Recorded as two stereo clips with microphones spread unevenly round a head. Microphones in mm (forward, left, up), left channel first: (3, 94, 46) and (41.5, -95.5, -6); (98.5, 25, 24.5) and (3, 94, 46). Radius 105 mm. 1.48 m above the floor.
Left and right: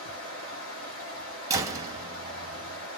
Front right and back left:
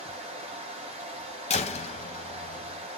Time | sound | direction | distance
0.0 | running water | 115° left | 1.0 m
1.5 | a door slam | 5° left | 0.7 m